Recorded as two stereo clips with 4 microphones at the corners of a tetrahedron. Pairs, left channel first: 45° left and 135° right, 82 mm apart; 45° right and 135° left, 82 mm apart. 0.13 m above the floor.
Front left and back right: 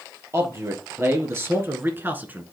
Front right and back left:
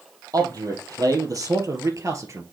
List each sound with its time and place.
0.3 s a man speaking: 170° left, 2.5 m; by 2.4 s 165° left, 1.4 m